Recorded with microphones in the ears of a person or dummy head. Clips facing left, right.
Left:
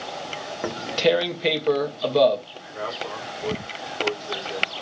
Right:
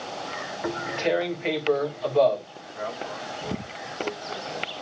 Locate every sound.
0.6 s tearing paper: 55° left (ahead or behind), 2.5 m
2.5 s a man speaking: 85° left, 5.5 m